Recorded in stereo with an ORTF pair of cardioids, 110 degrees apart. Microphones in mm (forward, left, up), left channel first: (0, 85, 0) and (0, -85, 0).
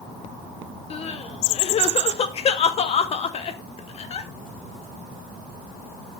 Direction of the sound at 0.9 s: 40° left.